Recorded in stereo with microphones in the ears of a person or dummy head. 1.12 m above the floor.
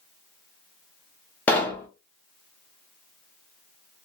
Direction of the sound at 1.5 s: 10° left (ahead or behind).